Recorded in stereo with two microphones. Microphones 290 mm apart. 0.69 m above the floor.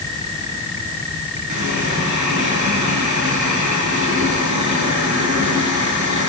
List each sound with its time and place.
1.5 s a running tap: 80° right, 9 m